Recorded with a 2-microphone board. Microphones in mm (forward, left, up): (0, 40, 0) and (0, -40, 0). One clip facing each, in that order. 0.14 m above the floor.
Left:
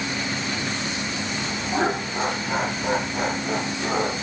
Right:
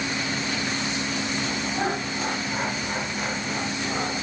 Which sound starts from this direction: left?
Laughter, at 1.7 s.